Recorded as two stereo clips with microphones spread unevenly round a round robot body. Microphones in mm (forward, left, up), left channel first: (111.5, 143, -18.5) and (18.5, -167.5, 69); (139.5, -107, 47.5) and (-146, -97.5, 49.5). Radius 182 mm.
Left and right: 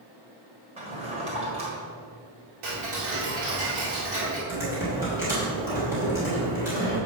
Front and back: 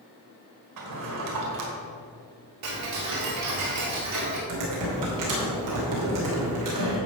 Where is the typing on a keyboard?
165° left, 3 m.